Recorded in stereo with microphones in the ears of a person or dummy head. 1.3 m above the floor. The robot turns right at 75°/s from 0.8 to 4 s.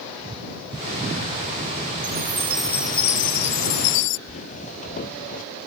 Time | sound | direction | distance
2.0 | a chime | 45° right | ?
4.3 | footsteps | 40° left (ahead or behind) | ?